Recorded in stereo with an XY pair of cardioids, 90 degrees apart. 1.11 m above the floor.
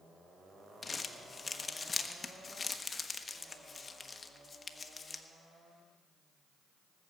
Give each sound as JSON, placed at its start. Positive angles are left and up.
{"t": 0.8, "sound": "crumpling", "azimuth_deg": 35, "distance_m": 1.1}